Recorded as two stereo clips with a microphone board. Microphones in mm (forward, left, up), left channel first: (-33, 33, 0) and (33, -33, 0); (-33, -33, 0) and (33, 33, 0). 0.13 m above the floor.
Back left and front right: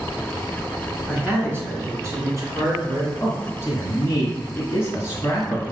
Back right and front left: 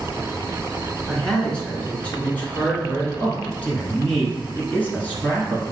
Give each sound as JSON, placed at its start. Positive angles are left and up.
{"t": 1.1, "sound": "a man speaking", "azimuth_deg": -65, "distance_m": 1.5}
{"t": 3.2, "sound": "a man speaking", "azimuth_deg": 165, "distance_m": 1.2}